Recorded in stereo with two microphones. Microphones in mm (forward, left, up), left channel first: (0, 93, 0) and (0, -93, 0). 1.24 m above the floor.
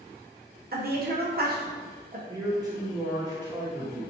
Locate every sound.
0.7 s a woman speaking: 55° right (ahead or behind), 0.8 m
2.3 s a man speaking: 20° right (ahead or behind), 1.2 m